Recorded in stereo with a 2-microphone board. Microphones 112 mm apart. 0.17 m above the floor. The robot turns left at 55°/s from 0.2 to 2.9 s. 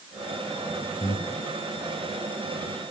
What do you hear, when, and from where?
1.0 s breathing: 40° left (ahead or behind), 1.9 m; by 1.4 s 60° left (ahead or behind), 1.9 m